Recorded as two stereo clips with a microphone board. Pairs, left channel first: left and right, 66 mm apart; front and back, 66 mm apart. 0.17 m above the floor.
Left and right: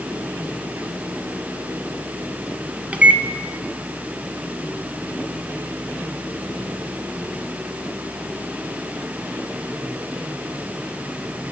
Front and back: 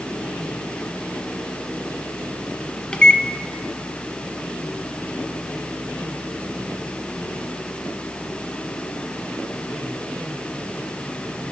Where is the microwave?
55° right, 1.0 m.